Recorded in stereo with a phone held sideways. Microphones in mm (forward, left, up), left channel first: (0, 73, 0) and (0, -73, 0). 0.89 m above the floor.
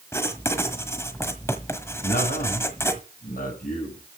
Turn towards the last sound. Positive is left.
turn(degrees=85)